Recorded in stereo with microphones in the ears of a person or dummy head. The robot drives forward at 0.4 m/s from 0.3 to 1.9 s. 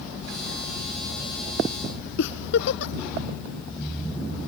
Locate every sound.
2.2 s a giggle: 80° left